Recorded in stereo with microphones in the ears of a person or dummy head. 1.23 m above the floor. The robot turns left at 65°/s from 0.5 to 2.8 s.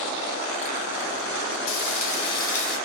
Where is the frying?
70° left, 1.2 m; by 2.8 s straight ahead, 1.2 m.